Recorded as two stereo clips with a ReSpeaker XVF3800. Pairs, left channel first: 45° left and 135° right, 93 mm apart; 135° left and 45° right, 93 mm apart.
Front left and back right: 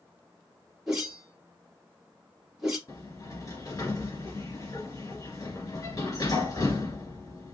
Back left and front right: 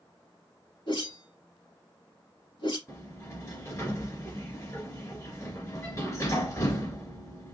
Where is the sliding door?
90° left, 2 m.